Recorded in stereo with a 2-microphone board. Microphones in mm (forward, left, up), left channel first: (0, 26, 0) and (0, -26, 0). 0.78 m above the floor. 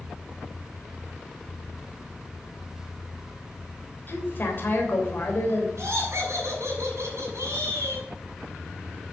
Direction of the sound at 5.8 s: 65° right (ahead or behind).